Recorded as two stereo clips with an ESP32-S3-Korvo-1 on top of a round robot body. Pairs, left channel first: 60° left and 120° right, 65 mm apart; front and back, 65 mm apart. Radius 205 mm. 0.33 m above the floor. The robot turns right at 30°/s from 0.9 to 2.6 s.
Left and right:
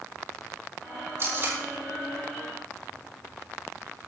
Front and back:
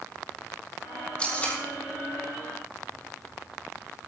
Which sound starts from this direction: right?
Tape being pulled, at 1.2 s.